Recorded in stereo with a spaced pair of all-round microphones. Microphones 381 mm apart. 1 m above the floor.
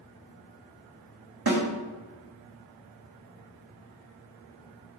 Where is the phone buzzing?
No phone buzzing in this recording.